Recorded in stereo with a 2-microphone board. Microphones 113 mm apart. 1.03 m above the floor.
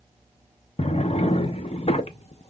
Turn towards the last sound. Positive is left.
turn(degrees=60)  # may be behind; listen again after turning